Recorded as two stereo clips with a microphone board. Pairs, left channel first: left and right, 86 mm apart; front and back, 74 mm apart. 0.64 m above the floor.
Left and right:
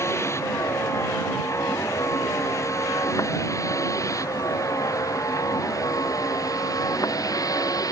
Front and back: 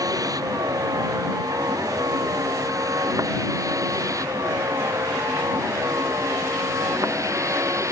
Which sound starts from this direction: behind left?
A vehicle, at 0.0 s.